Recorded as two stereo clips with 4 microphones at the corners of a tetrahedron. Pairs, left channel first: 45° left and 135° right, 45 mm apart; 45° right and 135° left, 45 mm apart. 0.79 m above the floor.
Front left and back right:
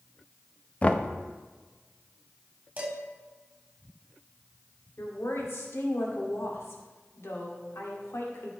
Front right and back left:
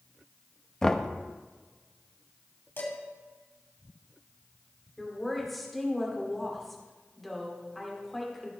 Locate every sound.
0.8 s knocking: 20° left, 0.6 m
2.8 s dishes clattering: 75° right, 3 m
5.0 s a woman speaking: 45° left, 2 m